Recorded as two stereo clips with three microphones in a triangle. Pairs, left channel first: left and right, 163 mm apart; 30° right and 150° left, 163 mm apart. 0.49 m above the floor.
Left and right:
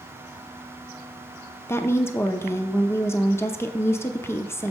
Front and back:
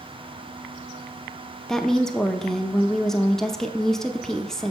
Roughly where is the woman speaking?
Ahead left.